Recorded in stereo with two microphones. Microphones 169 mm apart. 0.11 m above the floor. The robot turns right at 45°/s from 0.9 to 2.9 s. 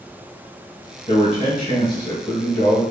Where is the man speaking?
95° left, 1.7 m; by 2.8 s 170° left, 1.7 m.